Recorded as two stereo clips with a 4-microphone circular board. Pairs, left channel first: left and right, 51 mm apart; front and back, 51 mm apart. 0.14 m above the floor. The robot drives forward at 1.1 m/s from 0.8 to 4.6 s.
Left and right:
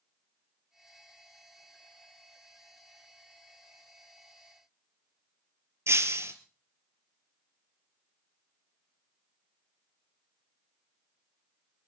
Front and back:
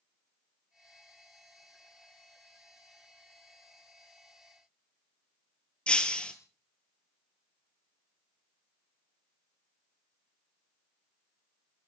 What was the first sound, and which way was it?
Breaking glass, 65° right.